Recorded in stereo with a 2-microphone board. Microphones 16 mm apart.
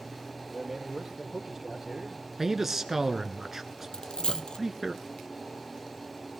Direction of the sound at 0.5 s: 15° right (ahead or behind).